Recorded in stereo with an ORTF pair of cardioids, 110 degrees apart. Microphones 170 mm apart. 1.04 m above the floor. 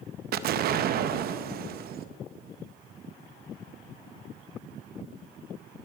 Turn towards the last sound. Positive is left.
turn(degrees=-60)